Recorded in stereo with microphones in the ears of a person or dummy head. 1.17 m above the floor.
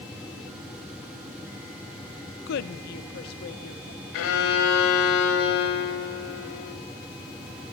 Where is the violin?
80° left, 3 m.